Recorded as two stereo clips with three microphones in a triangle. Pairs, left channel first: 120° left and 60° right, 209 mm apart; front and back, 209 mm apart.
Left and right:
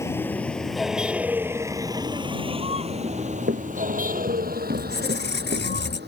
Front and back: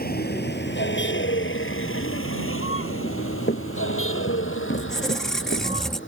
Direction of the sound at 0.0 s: 40° left.